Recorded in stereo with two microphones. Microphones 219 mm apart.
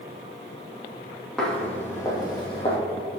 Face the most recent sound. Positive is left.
turn(degrees=25)  # may be behind; listen again after turning